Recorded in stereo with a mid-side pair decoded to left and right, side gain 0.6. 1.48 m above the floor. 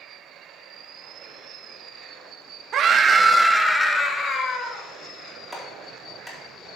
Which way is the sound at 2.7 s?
50° right.